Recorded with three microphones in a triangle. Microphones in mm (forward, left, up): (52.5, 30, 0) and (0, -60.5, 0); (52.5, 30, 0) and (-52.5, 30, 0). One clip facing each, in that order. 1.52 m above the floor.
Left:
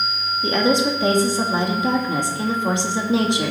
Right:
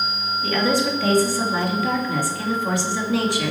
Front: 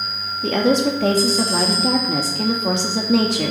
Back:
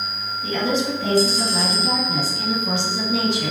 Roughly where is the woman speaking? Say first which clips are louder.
Left 3 dB, front 5 dB; ahead.